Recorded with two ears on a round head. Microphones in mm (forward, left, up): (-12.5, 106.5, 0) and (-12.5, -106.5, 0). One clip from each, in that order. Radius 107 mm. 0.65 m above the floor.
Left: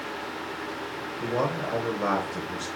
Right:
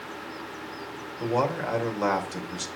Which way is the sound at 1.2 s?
70° right (ahead or behind).